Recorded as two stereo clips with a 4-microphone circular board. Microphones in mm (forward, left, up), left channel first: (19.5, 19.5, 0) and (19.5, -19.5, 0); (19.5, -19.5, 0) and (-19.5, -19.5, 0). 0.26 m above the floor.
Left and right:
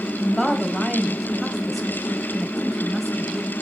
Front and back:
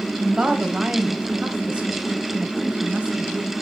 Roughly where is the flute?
No flute in this recording.